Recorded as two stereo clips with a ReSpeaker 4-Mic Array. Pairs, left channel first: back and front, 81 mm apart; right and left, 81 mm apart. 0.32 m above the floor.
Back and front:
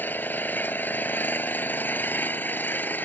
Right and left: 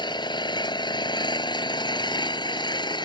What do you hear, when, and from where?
0.0 s an engine running: 115° right